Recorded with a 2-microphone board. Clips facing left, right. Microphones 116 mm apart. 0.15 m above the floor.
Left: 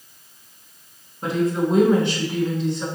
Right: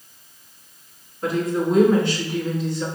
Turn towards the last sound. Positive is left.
turn(degrees=25)  # may be behind; listen again after turning